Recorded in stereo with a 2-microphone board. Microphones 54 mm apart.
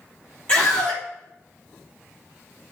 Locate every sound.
0.5 s a scream: 25° left (ahead or behind), 4 m